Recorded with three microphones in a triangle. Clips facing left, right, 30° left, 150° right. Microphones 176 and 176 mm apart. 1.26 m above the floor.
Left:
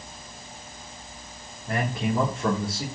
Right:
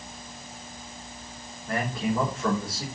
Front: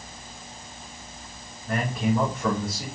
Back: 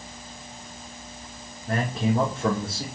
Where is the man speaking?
160° left, 3.5 m.